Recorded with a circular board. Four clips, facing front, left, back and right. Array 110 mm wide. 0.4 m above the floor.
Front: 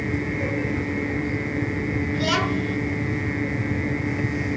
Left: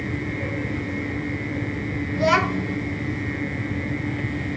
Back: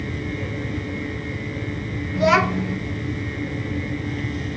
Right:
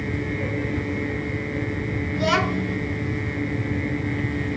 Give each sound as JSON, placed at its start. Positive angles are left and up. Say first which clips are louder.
{"t": 2.1, "sound": "a child speaking", "louder": "left 2 dB, back 8 dB", "azimuth_deg": 165, "distance_m": 0.9}